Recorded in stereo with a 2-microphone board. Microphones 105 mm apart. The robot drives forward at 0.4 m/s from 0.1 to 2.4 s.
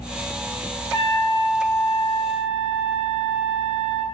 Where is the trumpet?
30° left (ahead or behind), 1.0 m; by 4.0 s 55° left (ahead or behind), 0.6 m.